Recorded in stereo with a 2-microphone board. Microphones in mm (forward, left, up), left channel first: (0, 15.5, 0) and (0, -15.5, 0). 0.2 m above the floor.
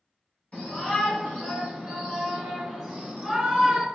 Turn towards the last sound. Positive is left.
turn(degrees=-10)  # may be behind; listen again after turning